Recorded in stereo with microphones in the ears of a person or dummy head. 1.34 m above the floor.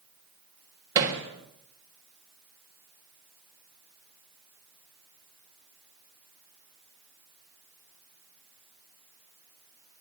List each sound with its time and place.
0.9 s hammering: 20° right (ahead or behind), 3 m